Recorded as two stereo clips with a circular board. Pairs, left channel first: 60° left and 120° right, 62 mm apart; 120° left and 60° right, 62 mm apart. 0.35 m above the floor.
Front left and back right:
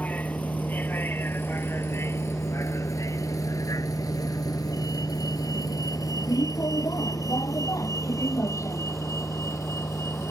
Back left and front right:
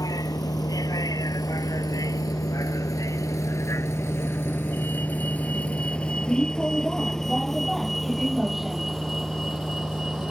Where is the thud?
No thud in this recording.